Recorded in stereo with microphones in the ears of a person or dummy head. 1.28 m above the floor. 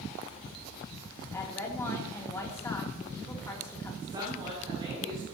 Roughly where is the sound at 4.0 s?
Right.